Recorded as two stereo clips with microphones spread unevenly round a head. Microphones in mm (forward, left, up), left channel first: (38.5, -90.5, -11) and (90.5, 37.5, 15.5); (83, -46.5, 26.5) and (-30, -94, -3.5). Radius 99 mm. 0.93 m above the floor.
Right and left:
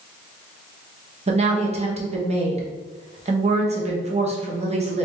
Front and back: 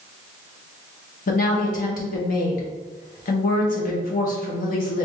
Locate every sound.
1.3 s a woman speaking: 25° left, 1.1 m